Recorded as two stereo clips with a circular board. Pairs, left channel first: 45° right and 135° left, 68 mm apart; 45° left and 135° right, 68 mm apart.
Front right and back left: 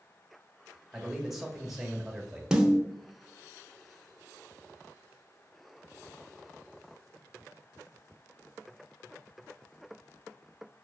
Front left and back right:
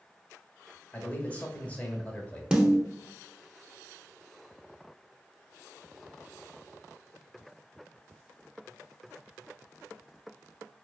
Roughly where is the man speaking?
Ahead left.